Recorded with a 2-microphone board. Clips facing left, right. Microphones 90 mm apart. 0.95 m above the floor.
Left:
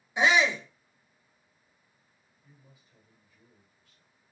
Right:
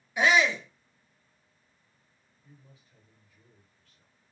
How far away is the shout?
About 0.7 m.